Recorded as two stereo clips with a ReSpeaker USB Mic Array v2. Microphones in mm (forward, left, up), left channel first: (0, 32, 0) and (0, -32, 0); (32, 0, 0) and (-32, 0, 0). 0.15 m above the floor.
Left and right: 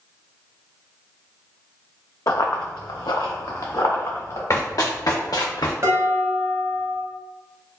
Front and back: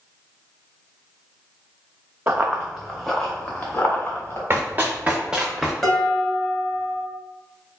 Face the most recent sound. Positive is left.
turn(degrees=-85)